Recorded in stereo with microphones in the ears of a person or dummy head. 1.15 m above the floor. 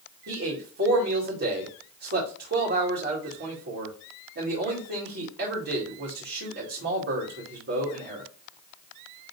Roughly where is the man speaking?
Right.